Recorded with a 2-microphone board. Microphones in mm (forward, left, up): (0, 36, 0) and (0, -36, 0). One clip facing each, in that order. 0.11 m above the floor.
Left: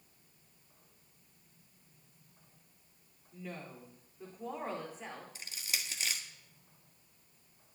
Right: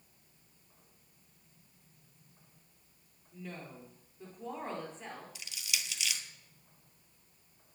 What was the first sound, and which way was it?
A woman speaking, 5° left (ahead or behind).